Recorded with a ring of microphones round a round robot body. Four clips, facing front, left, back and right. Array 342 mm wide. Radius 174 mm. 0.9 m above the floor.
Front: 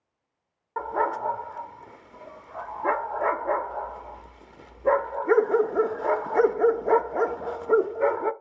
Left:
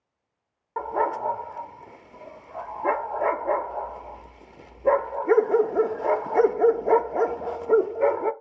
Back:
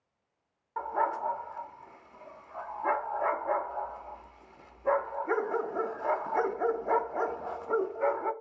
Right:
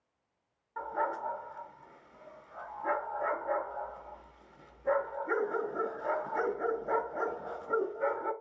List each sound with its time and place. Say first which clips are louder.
0.8 s a dog barking: left 8 dB, front 4 dB; 55° left, 0.7 m